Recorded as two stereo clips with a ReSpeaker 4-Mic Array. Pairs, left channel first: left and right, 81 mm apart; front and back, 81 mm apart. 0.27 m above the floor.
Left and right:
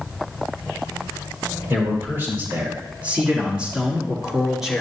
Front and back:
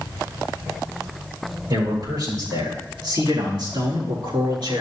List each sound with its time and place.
1.7 s a man speaking: 150° right, 5.5 m; by 4.8 s 175° right, 4.5 m